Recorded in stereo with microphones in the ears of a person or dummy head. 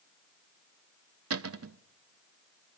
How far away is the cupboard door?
About 0.8 m.